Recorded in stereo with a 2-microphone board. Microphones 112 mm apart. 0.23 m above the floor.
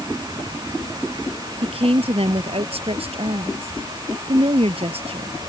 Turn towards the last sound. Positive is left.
turn(degrees=-60)  # may be behind; listen again after turning